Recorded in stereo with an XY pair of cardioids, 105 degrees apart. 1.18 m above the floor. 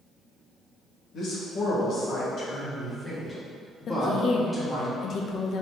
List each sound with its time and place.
1.1 s a man speaking: 70° left, 1.9 m; by 4.9 s 15° left, 2.5 m
3.9 s a woman speaking: 55° left, 0.8 m